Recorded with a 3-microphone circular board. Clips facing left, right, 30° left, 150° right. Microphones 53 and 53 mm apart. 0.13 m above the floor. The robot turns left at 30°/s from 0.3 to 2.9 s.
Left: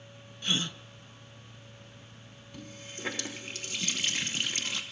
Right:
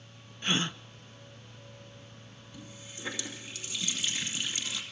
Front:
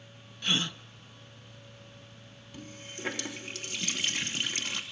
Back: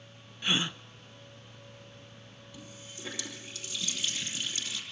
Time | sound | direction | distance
0.4 | a gasp | 90° right | 0.7 m
2.5 | a running tap | 65° left | 2.5 m